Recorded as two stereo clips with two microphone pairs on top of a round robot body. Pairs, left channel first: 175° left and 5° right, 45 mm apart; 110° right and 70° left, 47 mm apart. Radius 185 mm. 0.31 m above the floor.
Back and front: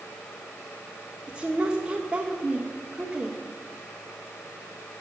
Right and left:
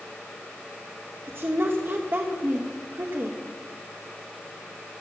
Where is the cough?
No cough in this recording.